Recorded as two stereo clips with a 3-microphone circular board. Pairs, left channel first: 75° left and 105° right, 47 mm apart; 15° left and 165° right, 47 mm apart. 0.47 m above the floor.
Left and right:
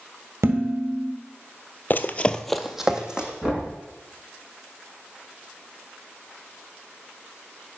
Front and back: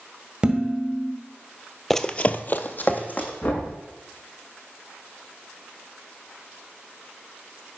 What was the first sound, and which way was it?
Dishes clattering, 95° right.